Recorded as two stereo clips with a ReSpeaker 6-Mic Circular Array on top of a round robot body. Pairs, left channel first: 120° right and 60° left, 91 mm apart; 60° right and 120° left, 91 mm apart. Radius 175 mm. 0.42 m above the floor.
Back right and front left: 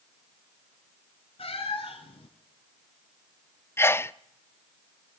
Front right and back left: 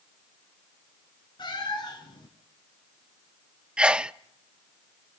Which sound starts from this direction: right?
A cat meowing, at 1.4 s.